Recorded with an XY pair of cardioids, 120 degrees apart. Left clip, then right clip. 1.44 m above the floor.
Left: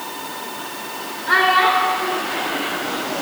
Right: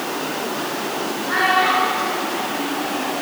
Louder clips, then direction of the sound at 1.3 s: Left 3 dB; 55° left.